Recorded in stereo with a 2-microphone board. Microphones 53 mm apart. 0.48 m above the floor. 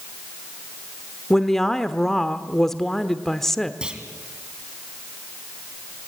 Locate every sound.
1.3 s a woman speaking: 5° left (ahead or behind), 1.0 m
3.8 s a clunk: 20° right (ahead or behind), 2 m